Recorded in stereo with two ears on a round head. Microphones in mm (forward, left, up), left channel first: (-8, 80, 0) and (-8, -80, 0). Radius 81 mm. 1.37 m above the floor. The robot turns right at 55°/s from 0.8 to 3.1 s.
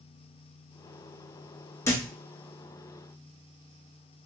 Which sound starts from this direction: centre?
A thud, at 1.9 s.